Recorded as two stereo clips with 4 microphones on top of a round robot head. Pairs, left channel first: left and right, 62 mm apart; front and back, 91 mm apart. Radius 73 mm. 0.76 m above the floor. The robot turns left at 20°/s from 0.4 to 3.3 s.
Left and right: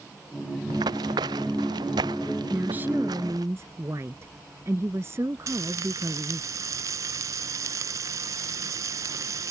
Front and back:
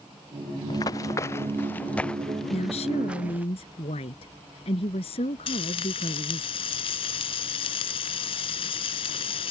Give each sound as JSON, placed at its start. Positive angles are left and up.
{"t": 0.7, "sound": "running footsteps", "azimuth_deg": -55}
{"t": 2.5, "sound": "a woman speaking", "azimuth_deg": -15}
{"t": 5.5, "sound": "frying", "azimuth_deg": -40}